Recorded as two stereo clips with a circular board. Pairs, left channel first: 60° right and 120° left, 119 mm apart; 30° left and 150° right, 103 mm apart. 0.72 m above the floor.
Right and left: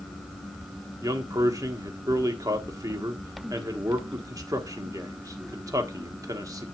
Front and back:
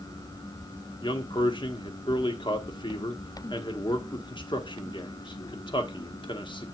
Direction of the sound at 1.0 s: 60° left.